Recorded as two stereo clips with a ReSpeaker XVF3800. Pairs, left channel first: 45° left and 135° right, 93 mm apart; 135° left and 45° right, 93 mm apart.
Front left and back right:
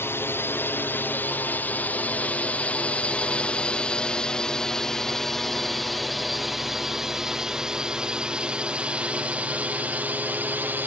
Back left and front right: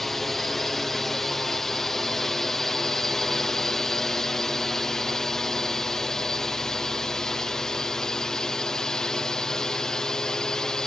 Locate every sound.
0.0 s a drone: 50° left; by 10.9 s 155° right